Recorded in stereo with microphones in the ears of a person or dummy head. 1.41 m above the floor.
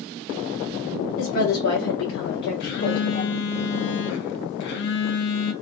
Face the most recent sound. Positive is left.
turn(degrees=60)  # may be behind; listen again after turning